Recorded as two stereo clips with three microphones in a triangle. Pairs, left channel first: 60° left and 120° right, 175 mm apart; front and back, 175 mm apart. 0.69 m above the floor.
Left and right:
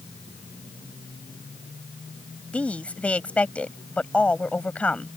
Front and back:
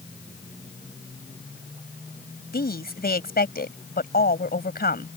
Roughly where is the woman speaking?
Ahead right.